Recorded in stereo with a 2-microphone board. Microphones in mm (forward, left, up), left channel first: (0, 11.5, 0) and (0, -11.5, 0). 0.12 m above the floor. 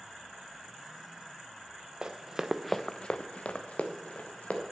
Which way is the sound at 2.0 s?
40° right (ahead or behind).